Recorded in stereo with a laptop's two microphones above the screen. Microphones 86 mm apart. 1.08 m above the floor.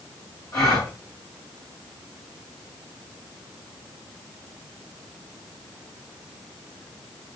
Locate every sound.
0.5 s a gasp: 40° left (ahead or behind), 4 m